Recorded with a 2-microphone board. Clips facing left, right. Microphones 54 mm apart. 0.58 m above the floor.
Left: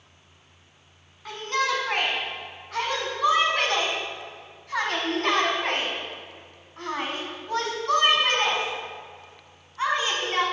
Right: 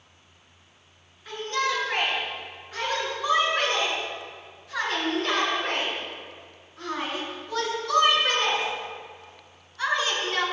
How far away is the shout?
About 5 m.